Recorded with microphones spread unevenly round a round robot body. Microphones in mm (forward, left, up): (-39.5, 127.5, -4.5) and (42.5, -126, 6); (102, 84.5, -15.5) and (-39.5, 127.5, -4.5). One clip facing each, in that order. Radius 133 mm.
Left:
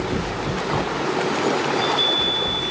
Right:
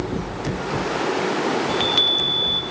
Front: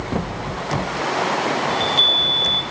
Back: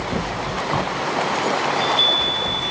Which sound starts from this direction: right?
A chime, at 1.7 s.